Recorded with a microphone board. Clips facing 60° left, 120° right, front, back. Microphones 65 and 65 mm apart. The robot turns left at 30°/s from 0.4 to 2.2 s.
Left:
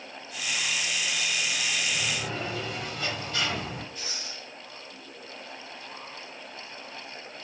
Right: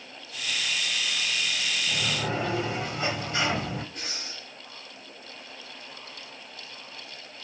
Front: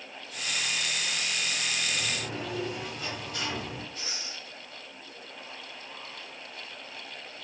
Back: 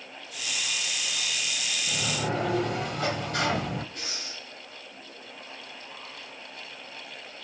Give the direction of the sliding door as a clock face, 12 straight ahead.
6 o'clock.